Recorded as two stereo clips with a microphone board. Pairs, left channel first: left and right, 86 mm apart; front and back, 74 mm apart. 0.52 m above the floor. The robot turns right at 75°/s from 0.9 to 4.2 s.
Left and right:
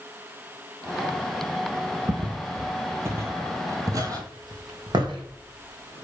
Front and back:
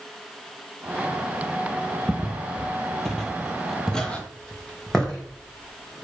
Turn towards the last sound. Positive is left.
turn(degrees=-85)